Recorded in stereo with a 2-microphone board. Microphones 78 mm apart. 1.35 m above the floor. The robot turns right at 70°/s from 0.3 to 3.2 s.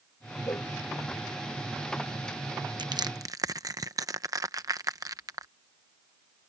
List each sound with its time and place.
0.5 s a cowbell: 45° left (ahead or behind); by 0.7 s 60° left (ahead or behind)
2.8 s crushing: 75° right (ahead or behind); by 5.5 s 50° right (ahead or behind)